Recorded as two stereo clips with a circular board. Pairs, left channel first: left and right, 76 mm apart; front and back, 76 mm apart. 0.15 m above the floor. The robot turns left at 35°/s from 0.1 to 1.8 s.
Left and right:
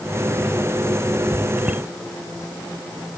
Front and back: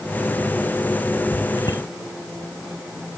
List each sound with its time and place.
1.6 s a bicycle bell: 10° right; by 1.8 s 20° right